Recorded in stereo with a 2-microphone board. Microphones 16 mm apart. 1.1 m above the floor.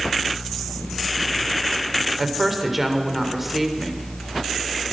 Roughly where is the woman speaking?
Centre.